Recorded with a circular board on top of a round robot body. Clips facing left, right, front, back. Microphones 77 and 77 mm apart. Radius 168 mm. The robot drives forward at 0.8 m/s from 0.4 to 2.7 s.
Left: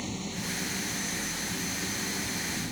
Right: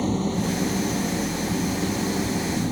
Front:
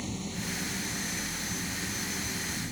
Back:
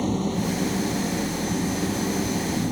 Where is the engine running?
140° right; by 2.7 s 145° right.